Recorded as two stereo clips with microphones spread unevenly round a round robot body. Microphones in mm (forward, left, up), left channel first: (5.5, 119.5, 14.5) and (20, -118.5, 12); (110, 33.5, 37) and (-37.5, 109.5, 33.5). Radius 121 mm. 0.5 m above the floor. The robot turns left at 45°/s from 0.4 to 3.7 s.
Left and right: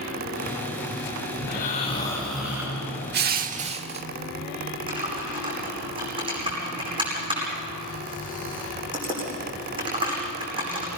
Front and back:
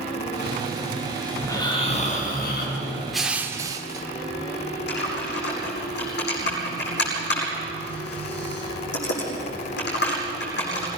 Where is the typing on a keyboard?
15° right, 9.5 m.